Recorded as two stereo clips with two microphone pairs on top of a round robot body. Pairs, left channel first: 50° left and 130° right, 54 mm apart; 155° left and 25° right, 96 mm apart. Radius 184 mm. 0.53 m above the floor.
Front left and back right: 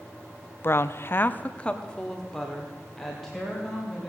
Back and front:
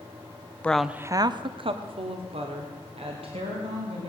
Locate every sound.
0.6 s a woman speaking: 85° left, 0.8 m; by 4.1 s 40° right, 3.5 m